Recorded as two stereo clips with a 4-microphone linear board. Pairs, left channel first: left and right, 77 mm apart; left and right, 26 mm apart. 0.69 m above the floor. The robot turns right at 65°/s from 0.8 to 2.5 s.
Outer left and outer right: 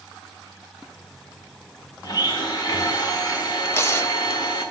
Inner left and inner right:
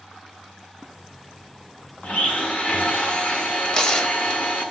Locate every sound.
2.0 s a blender: 65° left, 1.3 m; by 4.7 s 95° left, 1.3 m
3.6 s tearing paper: 35° left (ahead or behind), 0.8 m